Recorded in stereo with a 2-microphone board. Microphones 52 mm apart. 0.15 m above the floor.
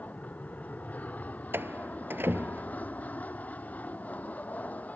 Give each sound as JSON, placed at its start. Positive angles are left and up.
{"t": 0.0, "sound": "an aircraft", "side_deg": 30}
{"t": 1.5, "sound": "a door slam", "side_deg": -45}